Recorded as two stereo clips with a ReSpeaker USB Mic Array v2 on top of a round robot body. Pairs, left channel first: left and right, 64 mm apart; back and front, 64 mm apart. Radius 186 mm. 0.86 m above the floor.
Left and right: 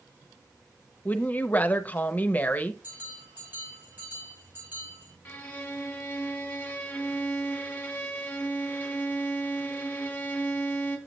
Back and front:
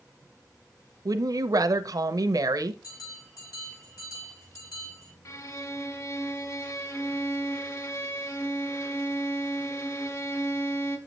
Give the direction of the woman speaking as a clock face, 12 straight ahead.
11 o'clock.